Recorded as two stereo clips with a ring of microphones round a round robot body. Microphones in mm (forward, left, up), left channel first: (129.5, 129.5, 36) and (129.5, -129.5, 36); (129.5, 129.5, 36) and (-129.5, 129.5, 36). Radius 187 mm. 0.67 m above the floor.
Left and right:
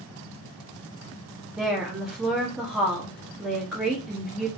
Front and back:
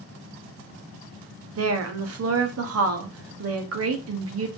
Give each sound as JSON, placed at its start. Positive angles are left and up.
{"t": 1.6, "sound": "a woman speaking", "azimuth_deg": 180, "distance_m": 0.8}